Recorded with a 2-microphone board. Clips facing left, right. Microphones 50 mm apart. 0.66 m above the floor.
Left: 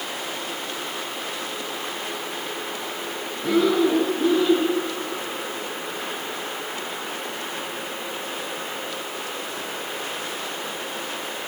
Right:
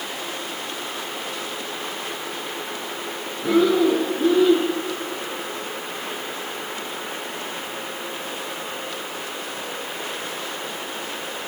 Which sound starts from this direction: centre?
Breathing, at 3.4 s.